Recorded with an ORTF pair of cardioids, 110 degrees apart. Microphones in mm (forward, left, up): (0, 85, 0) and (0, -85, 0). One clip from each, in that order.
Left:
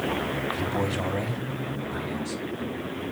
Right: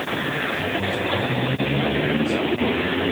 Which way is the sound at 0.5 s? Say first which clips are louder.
Right 4 dB; 30° left.